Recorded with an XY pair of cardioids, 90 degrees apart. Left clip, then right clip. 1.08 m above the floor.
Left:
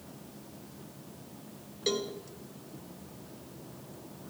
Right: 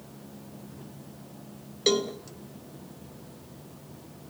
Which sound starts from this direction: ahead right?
A cowbell, at 1.9 s.